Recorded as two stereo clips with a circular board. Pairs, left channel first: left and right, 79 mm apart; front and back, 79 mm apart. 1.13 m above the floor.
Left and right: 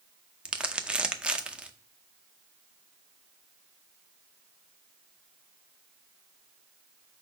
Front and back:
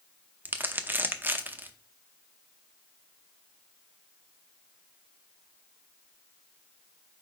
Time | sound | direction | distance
0.5 | crumpling | 150° right | 0.6 m